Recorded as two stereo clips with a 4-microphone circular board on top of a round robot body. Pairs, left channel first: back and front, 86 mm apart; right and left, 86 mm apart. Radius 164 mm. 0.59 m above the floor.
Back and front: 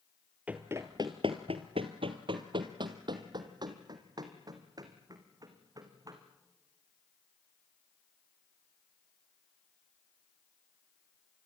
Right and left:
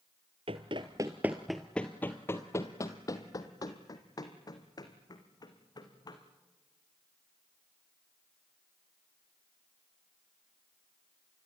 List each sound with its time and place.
0.5 s running footsteps: 75° left, 0.7 m; by 6.2 s 45° right, 3 m